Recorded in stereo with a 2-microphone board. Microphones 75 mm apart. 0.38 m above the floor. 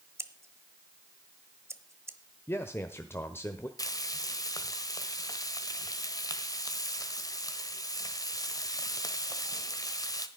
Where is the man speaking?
30° left (ahead or behind), 1.0 m.